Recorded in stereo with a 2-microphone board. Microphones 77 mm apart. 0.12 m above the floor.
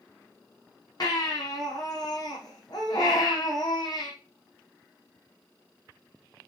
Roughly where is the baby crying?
Left.